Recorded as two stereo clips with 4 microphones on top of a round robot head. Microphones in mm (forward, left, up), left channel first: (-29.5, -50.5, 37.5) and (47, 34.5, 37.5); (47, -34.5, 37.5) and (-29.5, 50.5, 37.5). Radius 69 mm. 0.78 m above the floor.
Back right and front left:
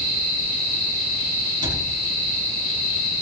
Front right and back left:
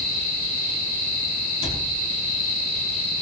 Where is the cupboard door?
5° right, 7 m.